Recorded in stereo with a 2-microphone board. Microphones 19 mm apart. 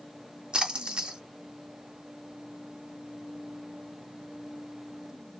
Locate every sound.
0.5 s a splash: 50° right (ahead or behind), 1.0 m